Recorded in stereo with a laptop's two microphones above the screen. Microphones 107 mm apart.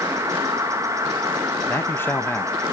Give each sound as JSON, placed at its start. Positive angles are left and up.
{"t": 0.0, "sound": "an insect", "side_deg": -30, "distance_m": 1.1}
{"t": 1.7, "sound": "a man speaking", "side_deg": 20, "distance_m": 0.7}